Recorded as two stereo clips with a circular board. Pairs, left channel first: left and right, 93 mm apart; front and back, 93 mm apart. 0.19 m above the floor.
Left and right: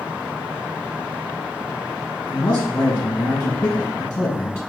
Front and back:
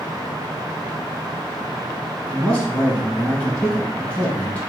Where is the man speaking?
60° left, 1.4 m.